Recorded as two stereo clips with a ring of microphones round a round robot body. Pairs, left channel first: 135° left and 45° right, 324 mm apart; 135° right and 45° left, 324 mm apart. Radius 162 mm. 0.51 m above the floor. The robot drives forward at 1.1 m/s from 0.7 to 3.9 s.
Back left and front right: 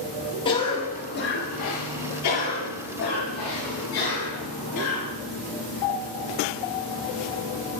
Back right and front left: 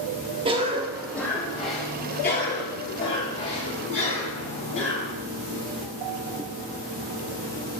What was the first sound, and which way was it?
A cough, 90° left.